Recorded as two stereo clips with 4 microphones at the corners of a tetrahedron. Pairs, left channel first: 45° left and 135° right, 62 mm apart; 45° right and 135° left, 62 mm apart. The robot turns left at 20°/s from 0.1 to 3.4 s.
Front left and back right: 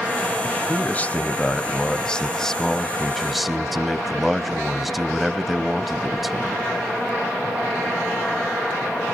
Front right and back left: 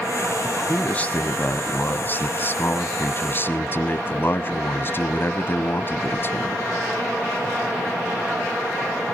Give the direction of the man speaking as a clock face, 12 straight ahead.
12 o'clock.